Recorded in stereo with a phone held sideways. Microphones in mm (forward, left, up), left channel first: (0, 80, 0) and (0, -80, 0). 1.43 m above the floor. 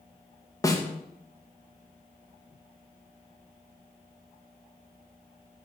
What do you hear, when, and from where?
0.6 s a snare drum: 20° left (ahead or behind), 1.1 m